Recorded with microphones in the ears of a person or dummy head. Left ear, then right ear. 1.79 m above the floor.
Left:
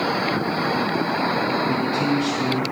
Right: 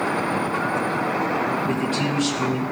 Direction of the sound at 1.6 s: 50° right (ahead or behind).